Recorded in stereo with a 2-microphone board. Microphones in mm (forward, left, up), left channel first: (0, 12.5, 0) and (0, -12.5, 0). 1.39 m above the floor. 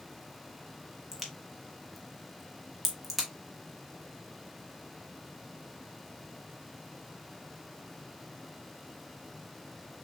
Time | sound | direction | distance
1.1 | a crack | 5° right (ahead or behind) | 1.3 m